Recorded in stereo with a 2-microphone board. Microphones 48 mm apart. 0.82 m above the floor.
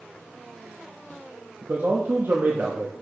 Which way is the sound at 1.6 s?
55° right (ahead or behind).